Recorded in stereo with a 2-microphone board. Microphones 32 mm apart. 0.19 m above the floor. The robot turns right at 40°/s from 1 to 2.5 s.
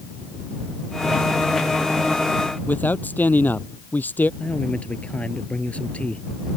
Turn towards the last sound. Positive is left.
turn(degrees=45)  # may be behind; listen again after turning